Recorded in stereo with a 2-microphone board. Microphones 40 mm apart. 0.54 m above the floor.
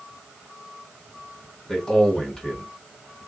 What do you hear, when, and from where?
1.7 s a man speaking: 20° left (ahead or behind), 1.8 m